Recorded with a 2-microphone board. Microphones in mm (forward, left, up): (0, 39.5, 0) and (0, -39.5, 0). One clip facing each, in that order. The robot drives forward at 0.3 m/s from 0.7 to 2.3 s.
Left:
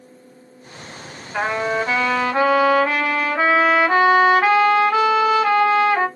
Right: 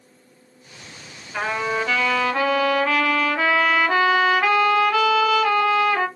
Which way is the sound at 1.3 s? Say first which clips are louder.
Left 3 dB; 20° left (ahead or behind).